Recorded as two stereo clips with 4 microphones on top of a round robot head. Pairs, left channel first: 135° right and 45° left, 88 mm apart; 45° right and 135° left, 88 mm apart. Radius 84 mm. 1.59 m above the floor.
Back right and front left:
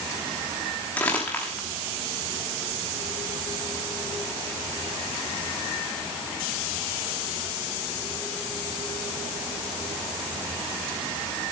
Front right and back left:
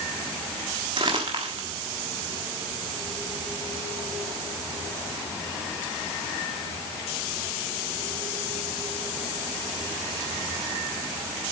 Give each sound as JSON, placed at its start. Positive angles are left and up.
{"t": 1.0, "sound": "crumpling", "azimuth_deg": 155, "distance_m": 1.2}